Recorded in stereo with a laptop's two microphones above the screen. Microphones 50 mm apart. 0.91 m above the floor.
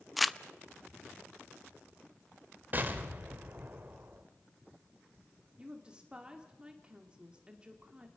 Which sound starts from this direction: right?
An explosion, at 2.7 s.